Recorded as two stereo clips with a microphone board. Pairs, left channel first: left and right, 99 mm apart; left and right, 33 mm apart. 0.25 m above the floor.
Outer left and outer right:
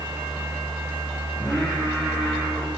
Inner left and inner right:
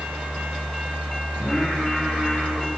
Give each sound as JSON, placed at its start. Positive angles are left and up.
{"t": 1.4, "sound": "singing", "side_deg": -15, "distance_m": 9.0}